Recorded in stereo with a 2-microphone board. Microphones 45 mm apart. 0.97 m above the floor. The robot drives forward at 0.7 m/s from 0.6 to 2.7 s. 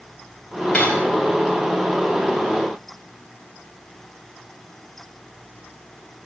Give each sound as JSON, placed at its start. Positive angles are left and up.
{"t": 0.7, "sound": "cutlery clinking", "side_deg": 25, "distance_m": 4.0}